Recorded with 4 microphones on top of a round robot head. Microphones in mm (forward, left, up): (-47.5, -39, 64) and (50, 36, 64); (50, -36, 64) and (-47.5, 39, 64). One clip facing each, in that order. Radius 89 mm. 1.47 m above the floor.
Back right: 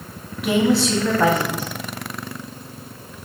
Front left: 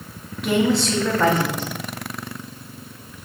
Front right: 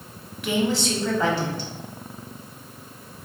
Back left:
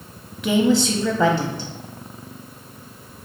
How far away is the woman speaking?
About 0.7 m.